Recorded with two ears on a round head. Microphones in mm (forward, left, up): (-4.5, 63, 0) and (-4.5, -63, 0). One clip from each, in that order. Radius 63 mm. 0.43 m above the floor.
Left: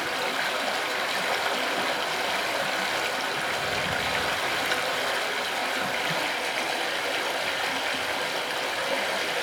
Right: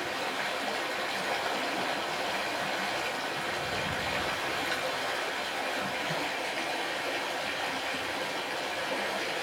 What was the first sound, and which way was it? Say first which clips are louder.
Running water: left 5 dB; 35° left (ahead or behind).